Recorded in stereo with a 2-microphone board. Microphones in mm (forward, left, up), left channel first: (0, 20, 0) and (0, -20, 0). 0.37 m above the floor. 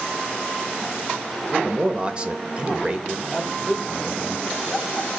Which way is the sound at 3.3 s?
Centre (ahead or behind).